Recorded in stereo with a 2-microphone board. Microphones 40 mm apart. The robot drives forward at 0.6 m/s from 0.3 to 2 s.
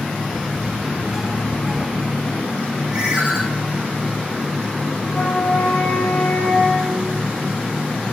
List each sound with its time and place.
2.9 s a ringtone: 20° right (ahead or behind), 5 m
5.0 s a flute: 20° left (ahead or behind), 6 m